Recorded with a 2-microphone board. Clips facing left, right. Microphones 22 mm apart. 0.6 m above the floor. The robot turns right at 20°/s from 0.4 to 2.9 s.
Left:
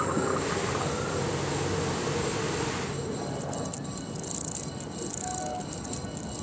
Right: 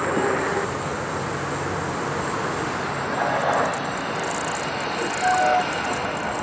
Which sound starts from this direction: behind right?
A vehicle, at 0.0 s.